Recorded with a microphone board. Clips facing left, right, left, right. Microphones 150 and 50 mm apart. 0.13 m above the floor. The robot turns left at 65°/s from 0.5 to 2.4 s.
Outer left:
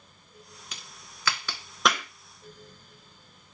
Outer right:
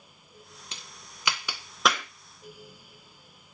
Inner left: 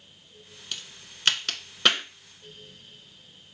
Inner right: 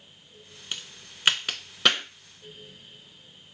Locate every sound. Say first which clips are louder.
0.7 s a crack: outer right 1 dB, inner right 1 dB; 30° right (ahead or behind), 0.6 m; by 2.0 s 5° left (ahead or behind), 0.6 m